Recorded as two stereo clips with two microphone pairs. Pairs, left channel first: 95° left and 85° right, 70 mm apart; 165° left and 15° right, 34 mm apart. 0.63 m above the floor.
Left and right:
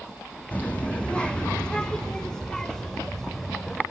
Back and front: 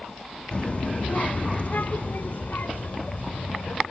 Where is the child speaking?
140° left, 0.7 m; by 3.8 s 175° left, 2.5 m.